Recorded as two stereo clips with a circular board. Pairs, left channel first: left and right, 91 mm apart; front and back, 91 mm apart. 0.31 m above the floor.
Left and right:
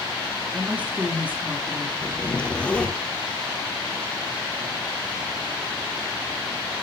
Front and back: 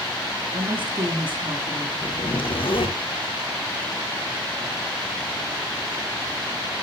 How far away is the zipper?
About 1.7 m.